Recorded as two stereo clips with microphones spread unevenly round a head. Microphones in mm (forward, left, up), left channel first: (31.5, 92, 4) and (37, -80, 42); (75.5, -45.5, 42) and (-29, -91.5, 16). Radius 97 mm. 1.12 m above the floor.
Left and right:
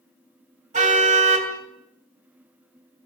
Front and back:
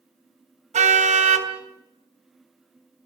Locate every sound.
0.7 s a car horn: 140° right, 3 m